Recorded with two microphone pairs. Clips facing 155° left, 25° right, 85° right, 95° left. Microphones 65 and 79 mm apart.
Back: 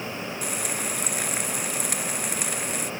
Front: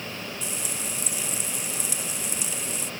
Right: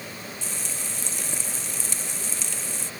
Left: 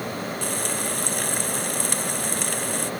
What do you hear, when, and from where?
0.4 s frying: 125° left